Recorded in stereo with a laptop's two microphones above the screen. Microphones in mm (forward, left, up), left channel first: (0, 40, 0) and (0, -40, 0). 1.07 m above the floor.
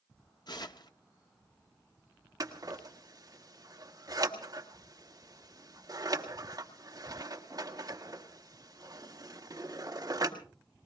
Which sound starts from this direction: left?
Tearing paper, at 0.5 s.